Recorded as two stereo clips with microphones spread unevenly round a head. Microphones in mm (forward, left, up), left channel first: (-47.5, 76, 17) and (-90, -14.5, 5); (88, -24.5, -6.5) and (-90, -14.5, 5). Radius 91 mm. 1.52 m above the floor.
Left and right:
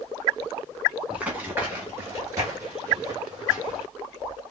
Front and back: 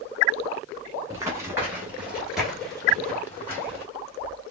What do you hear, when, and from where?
1.1 s running footsteps: straight behind, 1.5 m; by 3.9 s 80° right, 1.9 m